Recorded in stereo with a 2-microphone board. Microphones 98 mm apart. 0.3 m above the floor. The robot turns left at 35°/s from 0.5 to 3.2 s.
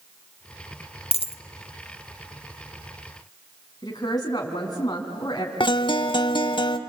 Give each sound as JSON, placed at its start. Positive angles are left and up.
{"t": 1.1, "sound": "a dropped coin", "side_deg": 70, "distance_m": 0.8}
{"t": 3.8, "sound": "a woman speaking", "side_deg": 40, "distance_m": 3.0}
{"t": 5.6, "sound": "a guitar", "side_deg": 50, "distance_m": 0.8}